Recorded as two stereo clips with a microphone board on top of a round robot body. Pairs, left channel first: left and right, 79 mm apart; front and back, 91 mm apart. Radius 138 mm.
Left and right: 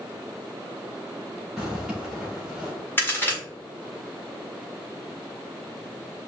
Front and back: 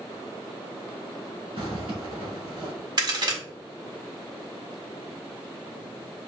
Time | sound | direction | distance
1.6 | a zipper | 175° right | 2 m
3.0 | a crack | 150° left | 1.8 m